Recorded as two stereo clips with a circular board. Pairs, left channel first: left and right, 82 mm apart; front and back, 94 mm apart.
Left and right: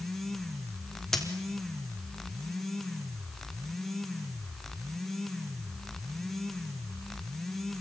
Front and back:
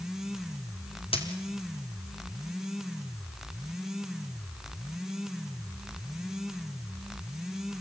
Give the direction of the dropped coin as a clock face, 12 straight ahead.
12 o'clock.